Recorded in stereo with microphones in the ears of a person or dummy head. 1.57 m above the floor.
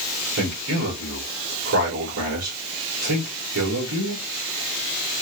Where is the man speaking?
80° right, 3.5 m.